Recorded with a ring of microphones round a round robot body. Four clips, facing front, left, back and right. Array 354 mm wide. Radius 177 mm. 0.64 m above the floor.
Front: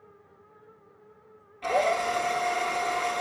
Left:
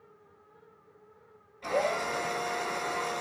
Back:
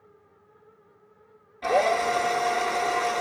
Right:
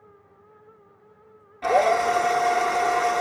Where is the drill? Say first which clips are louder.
Right 10 dB, back 3 dB; 100° right, 1.8 m.